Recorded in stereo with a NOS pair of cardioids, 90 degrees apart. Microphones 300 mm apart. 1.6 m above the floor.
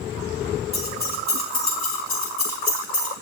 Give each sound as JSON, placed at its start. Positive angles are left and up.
{"t": 0.7, "sound": "keys jangling", "azimuth_deg": 30, "distance_m": 2.5}